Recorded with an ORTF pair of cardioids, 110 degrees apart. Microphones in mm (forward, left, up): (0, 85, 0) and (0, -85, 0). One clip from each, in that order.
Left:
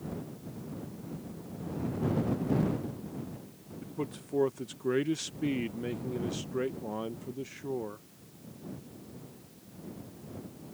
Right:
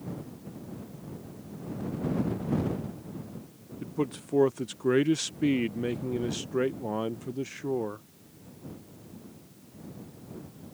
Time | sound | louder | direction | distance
3.8 | a man speaking | right 6 dB | 25° right | ?